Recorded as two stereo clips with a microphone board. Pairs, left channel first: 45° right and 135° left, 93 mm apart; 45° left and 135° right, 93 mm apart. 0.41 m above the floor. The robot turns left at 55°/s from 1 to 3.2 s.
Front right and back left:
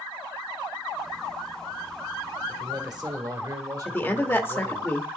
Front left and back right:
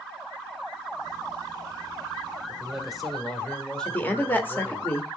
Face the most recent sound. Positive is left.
turn(degrees=-5)